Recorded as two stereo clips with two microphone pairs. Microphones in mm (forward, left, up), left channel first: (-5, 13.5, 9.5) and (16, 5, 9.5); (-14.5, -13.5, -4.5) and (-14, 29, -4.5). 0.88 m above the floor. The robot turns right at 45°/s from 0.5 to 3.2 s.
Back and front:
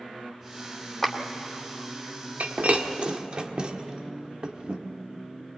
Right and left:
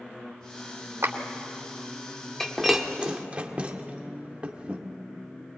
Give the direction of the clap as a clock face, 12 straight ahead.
10 o'clock.